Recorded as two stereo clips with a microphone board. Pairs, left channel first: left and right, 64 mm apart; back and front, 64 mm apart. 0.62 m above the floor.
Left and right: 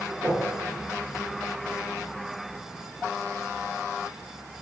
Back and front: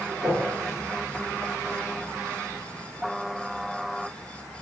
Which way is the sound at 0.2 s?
45° right.